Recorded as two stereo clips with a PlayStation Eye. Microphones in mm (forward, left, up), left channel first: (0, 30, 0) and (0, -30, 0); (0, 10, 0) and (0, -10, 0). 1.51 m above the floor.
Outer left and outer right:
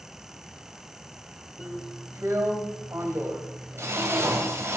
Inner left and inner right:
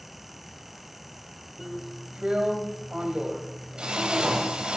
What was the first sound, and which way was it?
A drill, 50° right (ahead or behind).